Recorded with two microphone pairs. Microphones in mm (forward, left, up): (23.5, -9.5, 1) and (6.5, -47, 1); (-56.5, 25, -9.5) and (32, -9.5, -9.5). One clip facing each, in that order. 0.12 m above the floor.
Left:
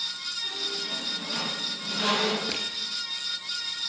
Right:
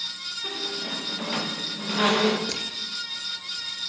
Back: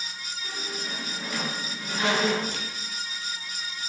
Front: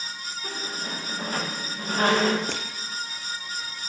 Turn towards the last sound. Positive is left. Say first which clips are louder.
# even, front 3 dB
turn(degrees=-10)